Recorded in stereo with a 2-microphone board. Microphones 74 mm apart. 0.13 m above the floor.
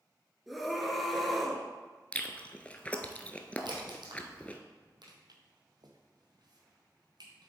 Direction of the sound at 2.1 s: 20° left (ahead or behind).